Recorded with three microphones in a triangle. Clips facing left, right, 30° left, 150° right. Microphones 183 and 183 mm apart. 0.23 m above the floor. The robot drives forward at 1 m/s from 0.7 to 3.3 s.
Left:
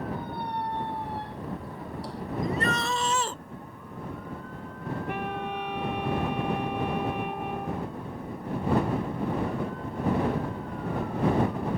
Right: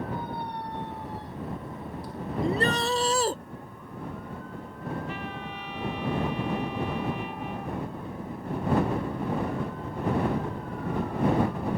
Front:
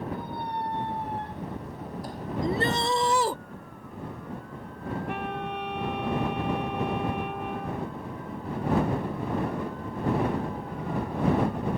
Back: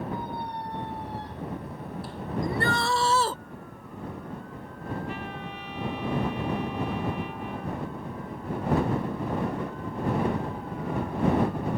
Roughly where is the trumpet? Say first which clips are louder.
Left 4 dB, front 4 dB; ahead left.